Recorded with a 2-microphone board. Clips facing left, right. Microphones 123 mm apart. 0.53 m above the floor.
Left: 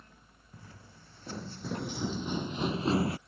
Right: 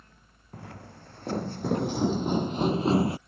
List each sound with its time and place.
0.5 s footsteps: 70° right (ahead or behind); by 3.2 s 20° right (ahead or behind)